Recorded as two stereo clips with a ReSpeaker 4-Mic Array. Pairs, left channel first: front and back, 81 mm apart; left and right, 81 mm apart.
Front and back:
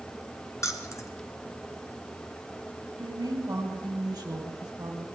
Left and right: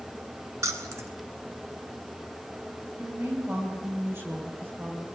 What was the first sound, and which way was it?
Keys jangling, 45° right.